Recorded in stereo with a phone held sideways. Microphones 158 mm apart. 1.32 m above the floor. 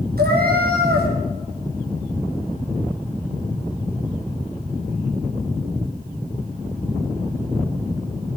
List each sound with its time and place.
0.2 s a cat meowing: 75° right (ahead or behind), 4.5 m